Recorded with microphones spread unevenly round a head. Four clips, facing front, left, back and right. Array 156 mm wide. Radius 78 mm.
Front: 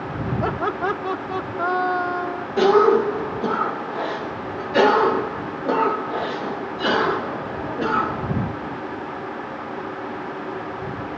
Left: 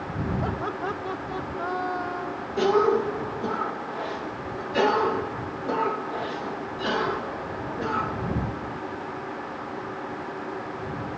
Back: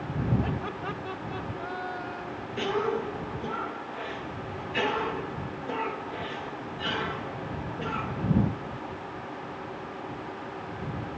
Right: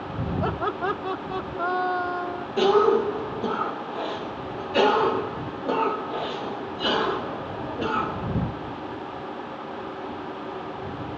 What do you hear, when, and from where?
0.4 s laughter: 20° right
2.6 s a cough: 15° right